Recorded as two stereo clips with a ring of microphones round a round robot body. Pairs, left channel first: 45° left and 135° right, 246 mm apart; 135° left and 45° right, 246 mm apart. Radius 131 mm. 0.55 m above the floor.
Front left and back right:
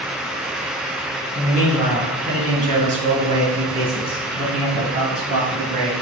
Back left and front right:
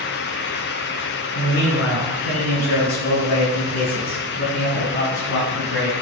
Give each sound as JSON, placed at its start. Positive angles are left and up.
{"t": 1.4, "sound": "a man speaking", "azimuth_deg": 165, "distance_m": 3.0}